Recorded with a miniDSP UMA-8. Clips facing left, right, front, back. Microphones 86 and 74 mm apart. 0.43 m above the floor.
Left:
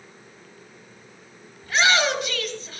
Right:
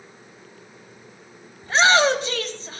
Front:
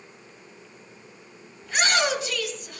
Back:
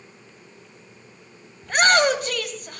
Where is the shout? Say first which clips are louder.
Right 4 dB, back 6 dB; 145° right, 2.5 m.